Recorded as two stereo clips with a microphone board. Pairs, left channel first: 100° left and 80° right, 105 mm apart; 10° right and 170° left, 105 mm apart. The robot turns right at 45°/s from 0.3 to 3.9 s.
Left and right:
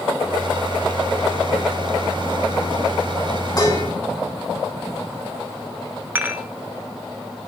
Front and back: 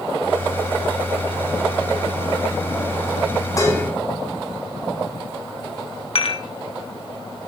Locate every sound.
3.6 s dishes clattering: 45° left, 3 m; by 3.8 s 60° left, 3 m
6.2 s dishes clattering: 10° right, 0.9 m